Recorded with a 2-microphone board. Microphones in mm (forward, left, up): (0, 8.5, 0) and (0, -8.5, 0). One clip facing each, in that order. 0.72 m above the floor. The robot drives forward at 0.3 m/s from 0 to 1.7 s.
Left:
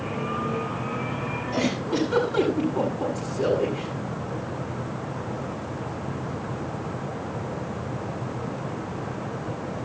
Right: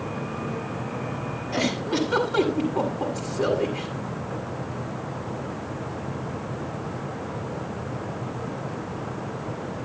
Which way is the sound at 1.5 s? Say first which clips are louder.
Right 1 dB; 20° right (ahead or behind).